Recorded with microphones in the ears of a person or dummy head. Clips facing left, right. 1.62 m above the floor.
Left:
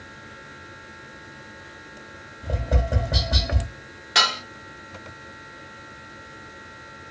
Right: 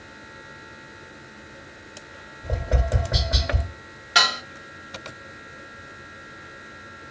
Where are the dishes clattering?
10° right (ahead or behind), 1.8 m.